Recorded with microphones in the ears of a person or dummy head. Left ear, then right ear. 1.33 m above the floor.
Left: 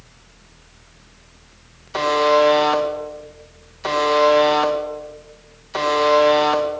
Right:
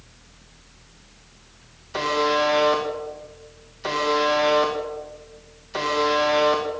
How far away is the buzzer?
About 1.7 m.